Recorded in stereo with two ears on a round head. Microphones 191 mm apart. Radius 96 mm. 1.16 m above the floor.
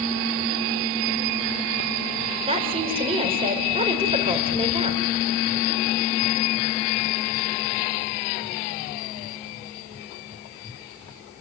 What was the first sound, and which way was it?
A woman speaking, 30° right (ahead or behind).